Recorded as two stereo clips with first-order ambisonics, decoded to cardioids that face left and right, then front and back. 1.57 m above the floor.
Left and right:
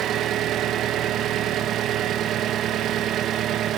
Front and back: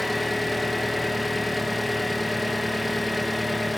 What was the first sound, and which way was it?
An engine running, 85° right.